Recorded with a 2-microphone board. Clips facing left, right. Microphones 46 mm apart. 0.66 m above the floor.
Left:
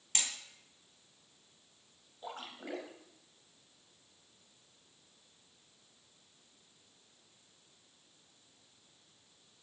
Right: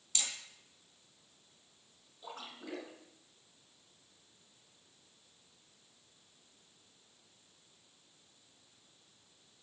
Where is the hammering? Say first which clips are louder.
Left 2 dB; 55° left (ahead or behind), 2.5 m.